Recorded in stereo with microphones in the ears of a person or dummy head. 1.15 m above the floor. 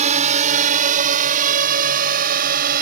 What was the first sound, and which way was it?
A drone, 40° right (ahead or behind).